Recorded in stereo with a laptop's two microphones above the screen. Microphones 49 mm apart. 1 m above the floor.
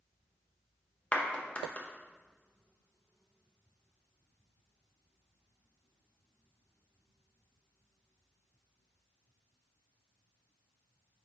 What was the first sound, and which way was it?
A clap, 30° left (ahead or behind).